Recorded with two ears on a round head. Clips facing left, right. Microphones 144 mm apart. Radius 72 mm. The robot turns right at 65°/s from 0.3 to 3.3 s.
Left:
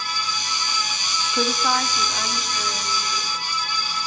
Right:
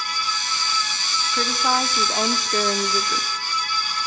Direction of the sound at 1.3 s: 165° left.